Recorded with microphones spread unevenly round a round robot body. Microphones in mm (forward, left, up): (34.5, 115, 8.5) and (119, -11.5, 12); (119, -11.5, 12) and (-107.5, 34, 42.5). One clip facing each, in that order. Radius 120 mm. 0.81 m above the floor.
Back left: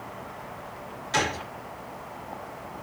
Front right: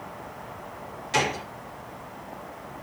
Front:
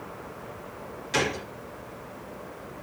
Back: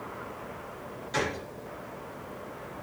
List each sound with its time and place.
1.1 s a gunshot: 20° left, 1.2 m